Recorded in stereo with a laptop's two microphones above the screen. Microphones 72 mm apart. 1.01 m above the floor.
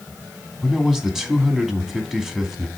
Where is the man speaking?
5° right (ahead or behind), 2.5 m.